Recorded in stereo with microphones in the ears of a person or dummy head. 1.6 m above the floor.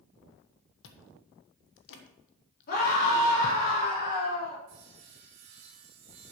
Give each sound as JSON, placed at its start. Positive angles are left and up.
{"t": 0.8, "sound": "chewing", "side_deg": 65, "distance_m": 1.4}
{"t": 2.7, "sound": "a scream", "side_deg": 50, "distance_m": 4.0}
{"t": 4.7, "sound": "sawing", "side_deg": -50, "distance_m": 2.5}